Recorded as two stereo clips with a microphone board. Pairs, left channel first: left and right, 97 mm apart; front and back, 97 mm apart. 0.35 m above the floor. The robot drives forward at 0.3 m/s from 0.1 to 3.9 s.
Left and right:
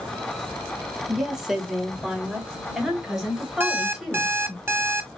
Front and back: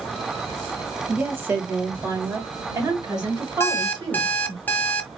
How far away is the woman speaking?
About 1.2 m.